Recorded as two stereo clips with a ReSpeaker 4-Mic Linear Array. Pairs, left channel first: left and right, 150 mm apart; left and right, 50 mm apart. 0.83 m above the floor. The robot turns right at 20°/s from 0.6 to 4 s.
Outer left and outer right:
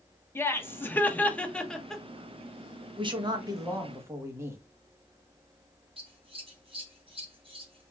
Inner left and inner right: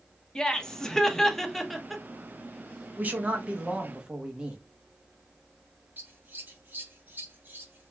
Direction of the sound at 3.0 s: 35° right (ahead or behind).